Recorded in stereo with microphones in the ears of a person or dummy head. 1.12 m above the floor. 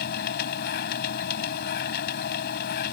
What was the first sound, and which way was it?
A machine running, 55° left (ahead or behind).